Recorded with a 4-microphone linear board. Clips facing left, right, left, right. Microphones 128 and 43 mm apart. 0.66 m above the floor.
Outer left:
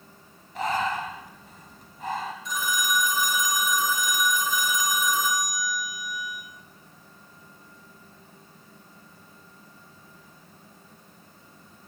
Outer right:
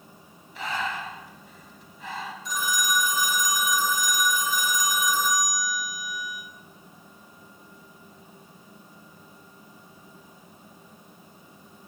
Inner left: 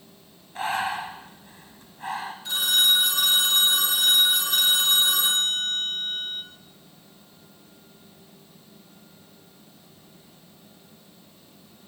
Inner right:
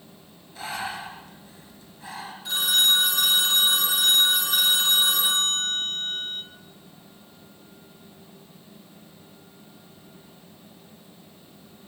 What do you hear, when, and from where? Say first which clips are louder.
0.6 s breathing: outer left 5 dB, inner left 5 dB; 45° left (ahead or behind), 1.2 m
2.5 s a phone ringing: outer right 2 dB, even; centre (ahead or behind), 2.5 m